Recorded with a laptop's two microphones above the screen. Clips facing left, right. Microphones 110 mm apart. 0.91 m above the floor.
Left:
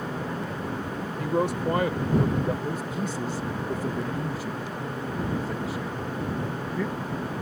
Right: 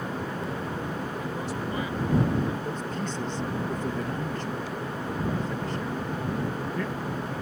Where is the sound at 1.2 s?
65° left (ahead or behind).